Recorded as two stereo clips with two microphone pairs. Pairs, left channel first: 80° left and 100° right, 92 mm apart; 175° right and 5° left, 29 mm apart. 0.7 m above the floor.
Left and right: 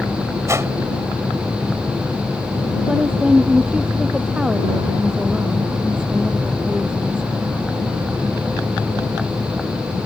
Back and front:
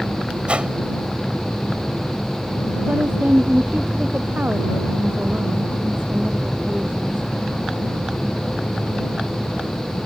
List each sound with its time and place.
0.5 s a whoosh: 45° right
2.9 s a woman speaking: 20° right